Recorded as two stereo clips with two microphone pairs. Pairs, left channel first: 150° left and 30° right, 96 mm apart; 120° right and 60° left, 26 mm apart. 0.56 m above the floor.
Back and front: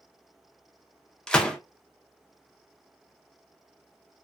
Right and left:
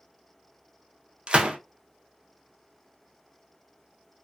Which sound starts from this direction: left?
A gunshot, at 1.3 s.